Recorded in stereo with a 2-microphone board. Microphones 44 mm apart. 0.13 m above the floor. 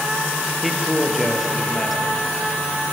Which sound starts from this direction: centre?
A man speaking, at 0.6 s.